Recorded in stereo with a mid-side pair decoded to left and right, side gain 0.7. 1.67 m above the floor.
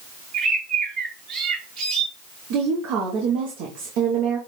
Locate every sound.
0.3 s a bird: 50° right, 2 m
2.5 s a woman speaking: 65° right, 1.1 m